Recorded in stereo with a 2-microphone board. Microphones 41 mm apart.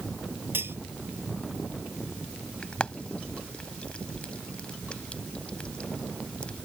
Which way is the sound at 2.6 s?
25° left (ahead or behind).